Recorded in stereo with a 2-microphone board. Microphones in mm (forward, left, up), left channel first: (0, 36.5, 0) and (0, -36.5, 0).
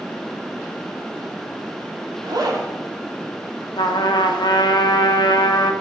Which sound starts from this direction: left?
A trumpet, at 3.8 s.